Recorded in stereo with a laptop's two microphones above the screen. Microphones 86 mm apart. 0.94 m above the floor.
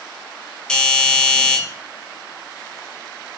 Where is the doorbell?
10° left (ahead or behind), 1.5 m.